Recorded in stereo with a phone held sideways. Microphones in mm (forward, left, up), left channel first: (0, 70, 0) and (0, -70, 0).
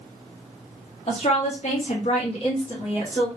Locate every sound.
1.1 s a woman speaking: 45° left (ahead or behind), 0.7 m; by 3.3 s 35° left (ahead or behind), 1.3 m